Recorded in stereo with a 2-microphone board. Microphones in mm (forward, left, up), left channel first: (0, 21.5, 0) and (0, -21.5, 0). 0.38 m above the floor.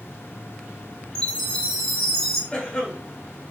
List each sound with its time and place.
1.1 s a chime: 15° left (ahead or behind), 1.2 m
2.5 s a cough: 20° left (ahead or behind), 0.9 m